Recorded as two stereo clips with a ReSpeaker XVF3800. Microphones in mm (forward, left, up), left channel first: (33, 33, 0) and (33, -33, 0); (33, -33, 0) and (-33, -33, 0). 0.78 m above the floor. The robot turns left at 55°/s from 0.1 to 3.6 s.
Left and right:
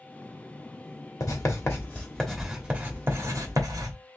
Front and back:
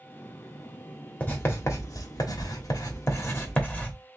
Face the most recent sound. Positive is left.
turn(degrees=-65)